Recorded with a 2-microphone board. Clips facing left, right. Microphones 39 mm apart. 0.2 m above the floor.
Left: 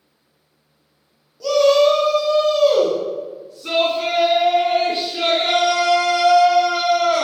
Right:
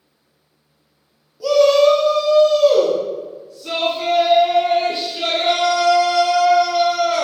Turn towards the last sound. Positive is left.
turn(degrees=50)  # may be behind; listen again after turning